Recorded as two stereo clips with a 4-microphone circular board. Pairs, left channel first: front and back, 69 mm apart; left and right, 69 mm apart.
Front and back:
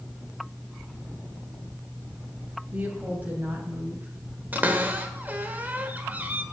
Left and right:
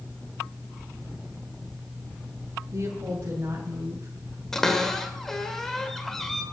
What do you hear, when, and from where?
2.7 s a woman speaking: 120° right, 2.5 m; by 4.1 s 125° right, 3 m
4.5 s a cupboard door: 165° left, 1.2 m